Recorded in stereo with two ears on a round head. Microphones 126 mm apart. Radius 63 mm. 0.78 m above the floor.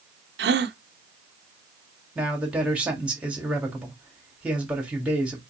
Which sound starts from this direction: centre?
A man speaking, at 2.1 s.